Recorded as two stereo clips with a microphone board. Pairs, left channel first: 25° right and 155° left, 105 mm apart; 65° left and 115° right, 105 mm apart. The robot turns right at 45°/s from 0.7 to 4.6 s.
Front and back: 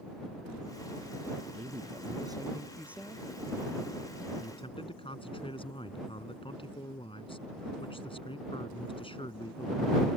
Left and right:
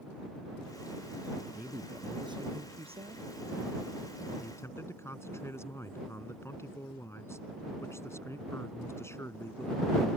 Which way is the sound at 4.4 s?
5° right.